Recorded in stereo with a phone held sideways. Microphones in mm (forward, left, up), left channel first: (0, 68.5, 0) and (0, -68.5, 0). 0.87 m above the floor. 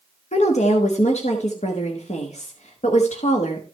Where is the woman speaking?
55° left (ahead or behind), 1.3 m.